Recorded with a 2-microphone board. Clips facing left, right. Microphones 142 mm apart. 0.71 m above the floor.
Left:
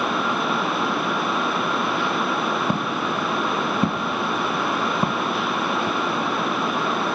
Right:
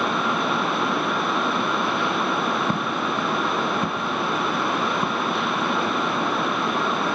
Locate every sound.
2.7 s footsteps: 10° left (ahead or behind); by 6.0 s 25° left (ahead or behind)